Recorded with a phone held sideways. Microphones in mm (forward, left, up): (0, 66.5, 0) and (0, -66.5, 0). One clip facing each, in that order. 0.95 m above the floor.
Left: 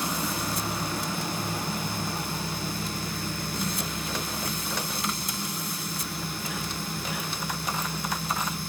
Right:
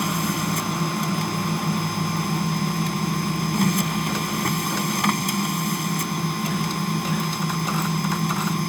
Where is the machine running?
85° right.